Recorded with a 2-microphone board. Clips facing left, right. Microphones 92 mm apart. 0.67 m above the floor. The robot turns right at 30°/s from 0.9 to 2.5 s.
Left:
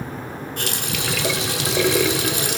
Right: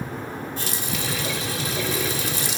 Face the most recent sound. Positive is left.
turn(degrees=120)